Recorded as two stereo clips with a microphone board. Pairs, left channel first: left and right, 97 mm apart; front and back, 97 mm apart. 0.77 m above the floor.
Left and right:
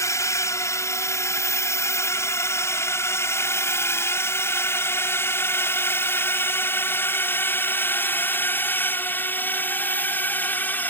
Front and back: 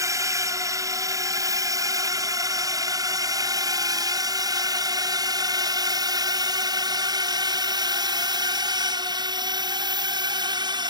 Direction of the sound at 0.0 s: 135° left.